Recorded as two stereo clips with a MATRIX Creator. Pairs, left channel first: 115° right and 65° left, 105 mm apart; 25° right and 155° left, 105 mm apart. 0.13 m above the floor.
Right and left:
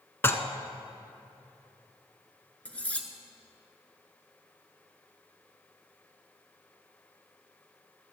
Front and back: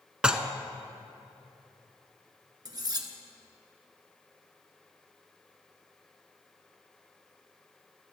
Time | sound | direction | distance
0.2 | dishes clattering | 135° right | 0.8 m
2.6 | cutlery clinking | 175° left | 1.2 m